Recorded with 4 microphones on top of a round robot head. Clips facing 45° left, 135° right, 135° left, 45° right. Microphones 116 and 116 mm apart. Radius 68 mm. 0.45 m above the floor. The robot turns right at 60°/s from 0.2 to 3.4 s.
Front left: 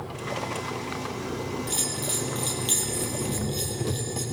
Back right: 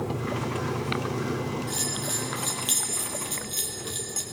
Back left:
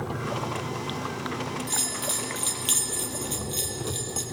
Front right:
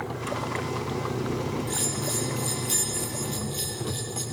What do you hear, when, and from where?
0.0 s an engine running: 140° right, 1.3 m; by 4.3 s 50° left, 1.3 m
1.7 s a bell: 80° left, 4.5 m; by 4.2 s straight behind, 4.5 m